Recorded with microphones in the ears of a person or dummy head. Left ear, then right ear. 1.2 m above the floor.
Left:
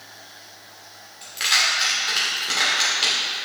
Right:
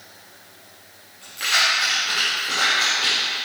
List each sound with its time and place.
1.2 s keys jangling: 30° left (ahead or behind), 2 m